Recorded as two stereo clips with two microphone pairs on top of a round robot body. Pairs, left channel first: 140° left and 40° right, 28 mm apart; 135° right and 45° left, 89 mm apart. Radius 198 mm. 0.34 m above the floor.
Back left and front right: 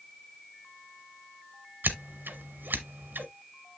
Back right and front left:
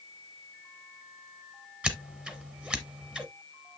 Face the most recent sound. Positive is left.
turn(degrees=-35)